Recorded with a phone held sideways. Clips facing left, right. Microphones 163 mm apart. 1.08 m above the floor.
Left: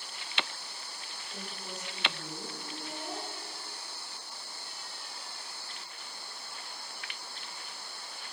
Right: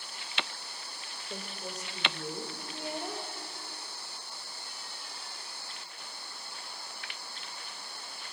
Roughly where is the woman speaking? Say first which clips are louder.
Right 3 dB; right.